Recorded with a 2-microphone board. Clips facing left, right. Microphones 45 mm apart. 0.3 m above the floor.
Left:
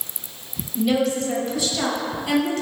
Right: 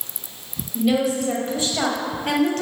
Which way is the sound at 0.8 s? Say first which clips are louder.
Right 1 dB; 5° right (ahead or behind).